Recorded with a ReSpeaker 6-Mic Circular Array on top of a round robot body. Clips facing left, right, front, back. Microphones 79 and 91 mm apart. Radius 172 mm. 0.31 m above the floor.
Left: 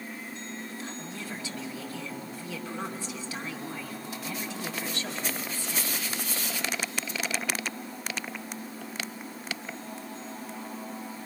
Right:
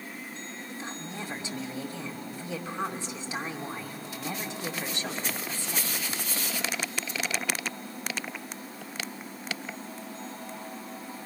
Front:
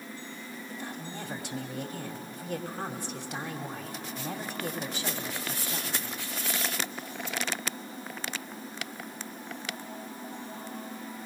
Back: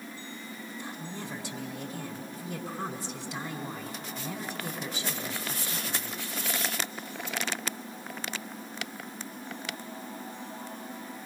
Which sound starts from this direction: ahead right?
A woman speaking, at 0.7 s.